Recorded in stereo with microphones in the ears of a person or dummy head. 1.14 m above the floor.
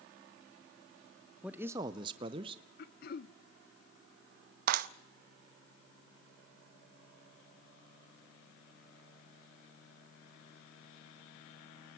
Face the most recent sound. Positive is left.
turn(degrees=-60)  # may be behind; listen again after turning